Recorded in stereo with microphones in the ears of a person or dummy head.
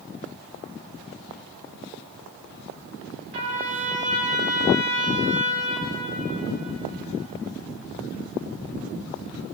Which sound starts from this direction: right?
A trumpet, at 3.3 s.